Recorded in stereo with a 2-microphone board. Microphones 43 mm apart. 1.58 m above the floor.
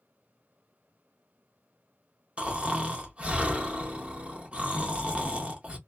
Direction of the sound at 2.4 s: 30° right (ahead or behind).